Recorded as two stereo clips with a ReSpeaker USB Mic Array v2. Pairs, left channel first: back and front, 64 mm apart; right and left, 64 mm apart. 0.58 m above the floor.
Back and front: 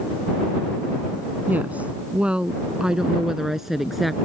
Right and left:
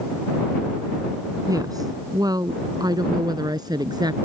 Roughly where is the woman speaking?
Ahead left.